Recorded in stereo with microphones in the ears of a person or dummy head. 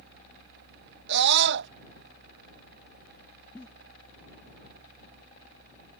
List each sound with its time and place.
1.1 s a scream: 65° right (ahead or behind)
3.5 s a giggle: 10° left (ahead or behind)